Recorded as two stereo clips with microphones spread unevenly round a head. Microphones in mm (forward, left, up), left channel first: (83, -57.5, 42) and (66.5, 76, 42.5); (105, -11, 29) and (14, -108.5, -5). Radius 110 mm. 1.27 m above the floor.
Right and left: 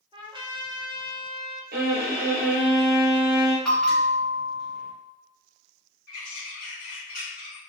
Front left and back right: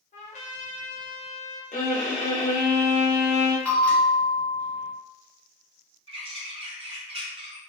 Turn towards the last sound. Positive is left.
turn(degrees=-90)